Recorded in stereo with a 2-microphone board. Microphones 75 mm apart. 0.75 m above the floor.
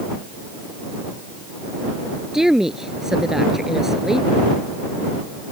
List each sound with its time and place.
2.3 s a woman speaking: 5° right (ahead or behind)